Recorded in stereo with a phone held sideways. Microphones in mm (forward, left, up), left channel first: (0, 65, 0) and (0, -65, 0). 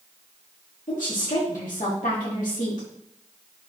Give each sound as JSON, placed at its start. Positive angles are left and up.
{"t": 0.9, "sound": "a woman speaking", "side_deg": 80, "distance_m": 2.5}